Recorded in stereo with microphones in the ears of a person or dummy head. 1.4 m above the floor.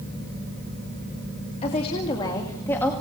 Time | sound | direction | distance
1.6 | a woman speaking | 35° left (ahead or behind) | 2.5 m